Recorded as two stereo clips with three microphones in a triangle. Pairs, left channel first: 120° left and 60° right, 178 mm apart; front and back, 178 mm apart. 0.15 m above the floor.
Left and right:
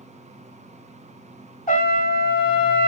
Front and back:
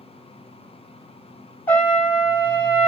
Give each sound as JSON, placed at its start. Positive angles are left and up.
{"t": 1.7, "sound": "a trumpet", "azimuth_deg": 80, "distance_m": 1.0}